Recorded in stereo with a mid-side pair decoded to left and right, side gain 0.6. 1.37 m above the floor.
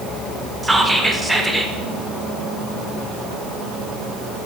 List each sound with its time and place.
0.6 s whispering: 10° right, 0.5 m